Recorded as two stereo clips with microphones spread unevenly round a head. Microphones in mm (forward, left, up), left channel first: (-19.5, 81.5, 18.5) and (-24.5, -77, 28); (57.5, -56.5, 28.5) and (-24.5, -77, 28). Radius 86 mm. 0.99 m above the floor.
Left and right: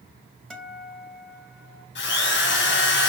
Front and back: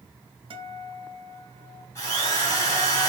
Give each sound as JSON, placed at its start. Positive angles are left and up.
{"t": 0.5, "sound": "a guitar", "azimuth_deg": 175, "distance_m": 1.9}
{"t": 1.9, "sound": "a drill", "azimuth_deg": 80, "distance_m": 3.5}